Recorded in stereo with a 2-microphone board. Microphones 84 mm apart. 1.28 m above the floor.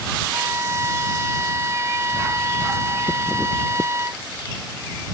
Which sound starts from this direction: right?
A violin, at 0.3 s.